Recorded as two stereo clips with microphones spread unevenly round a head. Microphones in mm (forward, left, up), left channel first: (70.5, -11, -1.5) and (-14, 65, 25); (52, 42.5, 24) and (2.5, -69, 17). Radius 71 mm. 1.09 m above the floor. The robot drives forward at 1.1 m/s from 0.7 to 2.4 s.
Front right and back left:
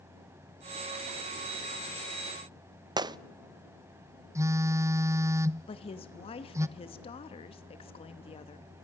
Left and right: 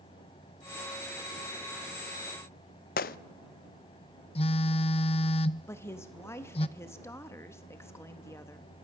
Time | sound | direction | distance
3.0 | a gunshot | 80° left | 0.6 m
4.3 | a phone buzzing | 70° left | 0.7 m
5.7 | a woman speaking | 5° right | 1.1 m